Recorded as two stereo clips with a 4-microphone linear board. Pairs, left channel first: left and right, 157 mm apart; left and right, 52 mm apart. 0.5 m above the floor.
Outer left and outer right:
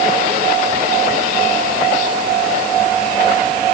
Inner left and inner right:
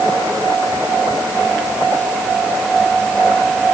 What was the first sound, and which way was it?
Only background noise.